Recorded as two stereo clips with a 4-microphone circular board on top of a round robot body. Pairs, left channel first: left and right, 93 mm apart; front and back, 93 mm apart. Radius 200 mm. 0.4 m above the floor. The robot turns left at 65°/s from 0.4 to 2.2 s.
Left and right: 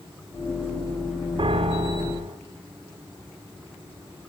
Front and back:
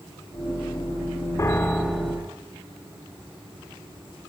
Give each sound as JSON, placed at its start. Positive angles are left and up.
{"t": 1.4, "sound": "a piano", "azimuth_deg": -60, "distance_m": 1.0}